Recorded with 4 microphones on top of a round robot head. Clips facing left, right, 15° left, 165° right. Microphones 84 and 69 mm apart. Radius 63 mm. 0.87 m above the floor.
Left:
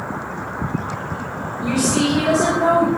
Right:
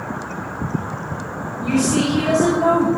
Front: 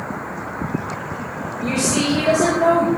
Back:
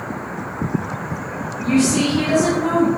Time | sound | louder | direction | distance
1.6 | a woman speaking | right 1 dB, back 4 dB | 15° left | 5.5 m